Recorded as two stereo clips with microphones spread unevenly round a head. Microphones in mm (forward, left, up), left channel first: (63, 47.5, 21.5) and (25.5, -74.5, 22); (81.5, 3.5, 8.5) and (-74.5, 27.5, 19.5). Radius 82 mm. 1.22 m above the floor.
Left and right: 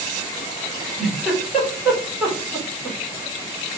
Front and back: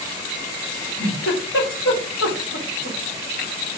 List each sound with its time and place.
0.7 s a giggle: 20° right, 4 m